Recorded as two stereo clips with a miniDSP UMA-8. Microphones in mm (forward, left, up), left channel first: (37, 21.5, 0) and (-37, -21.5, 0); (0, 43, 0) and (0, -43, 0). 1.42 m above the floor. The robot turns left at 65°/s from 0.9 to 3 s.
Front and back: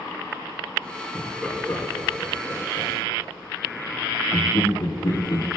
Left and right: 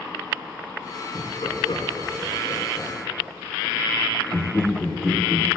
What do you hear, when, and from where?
1.1 s laughter: 125° left, 3.5 m; by 5.5 s 5° left, 3.5 m